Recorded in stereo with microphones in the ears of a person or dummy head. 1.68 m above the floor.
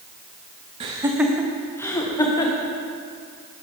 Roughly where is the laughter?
Right.